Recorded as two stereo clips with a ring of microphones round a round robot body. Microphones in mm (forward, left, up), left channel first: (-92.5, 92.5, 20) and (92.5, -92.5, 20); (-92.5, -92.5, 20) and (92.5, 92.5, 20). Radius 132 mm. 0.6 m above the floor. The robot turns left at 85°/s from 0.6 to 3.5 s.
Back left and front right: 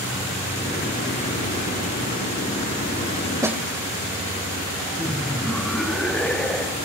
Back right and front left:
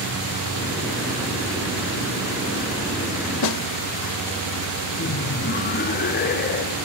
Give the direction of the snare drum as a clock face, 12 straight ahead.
4 o'clock.